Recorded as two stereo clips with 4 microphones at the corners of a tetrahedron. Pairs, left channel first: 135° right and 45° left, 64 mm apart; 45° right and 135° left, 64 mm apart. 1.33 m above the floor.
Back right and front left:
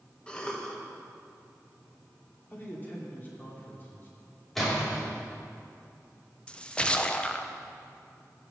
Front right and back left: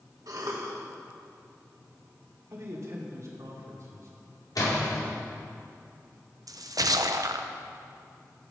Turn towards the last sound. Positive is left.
turn(degrees=150)